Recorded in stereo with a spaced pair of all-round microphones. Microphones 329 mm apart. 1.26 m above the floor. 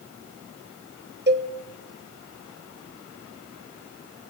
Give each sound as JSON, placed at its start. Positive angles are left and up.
{"t": 1.3, "sound": "a cowbell", "side_deg": -30, "distance_m": 1.3}